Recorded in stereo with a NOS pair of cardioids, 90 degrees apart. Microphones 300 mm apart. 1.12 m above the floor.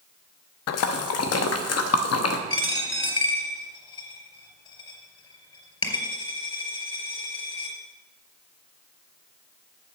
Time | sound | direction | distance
0.7 | a splash | 60° left | 1.0 m
2.5 | a dropped coin | 15° left | 4 m